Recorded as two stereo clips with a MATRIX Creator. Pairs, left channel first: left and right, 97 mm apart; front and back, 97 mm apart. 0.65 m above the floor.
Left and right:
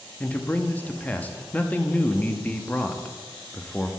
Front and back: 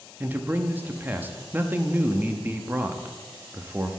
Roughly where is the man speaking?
Behind left.